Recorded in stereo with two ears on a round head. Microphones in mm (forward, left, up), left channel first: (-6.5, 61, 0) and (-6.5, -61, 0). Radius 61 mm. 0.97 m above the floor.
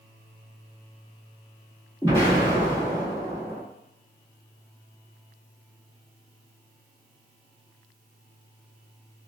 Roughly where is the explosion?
Left.